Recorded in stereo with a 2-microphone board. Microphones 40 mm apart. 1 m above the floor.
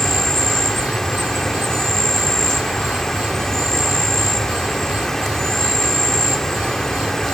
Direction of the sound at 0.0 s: 10° left (ahead or behind).